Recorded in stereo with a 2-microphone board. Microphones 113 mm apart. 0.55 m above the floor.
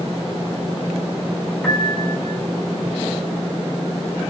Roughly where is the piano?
Centre.